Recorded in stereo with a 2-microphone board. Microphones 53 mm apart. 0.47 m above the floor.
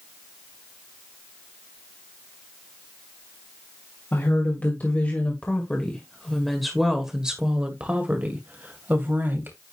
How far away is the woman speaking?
About 2.5 m.